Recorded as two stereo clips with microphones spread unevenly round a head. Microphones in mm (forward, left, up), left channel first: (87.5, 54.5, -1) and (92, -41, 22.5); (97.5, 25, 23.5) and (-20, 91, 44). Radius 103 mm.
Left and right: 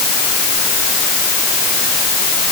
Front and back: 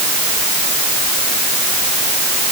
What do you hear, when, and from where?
Only background noise.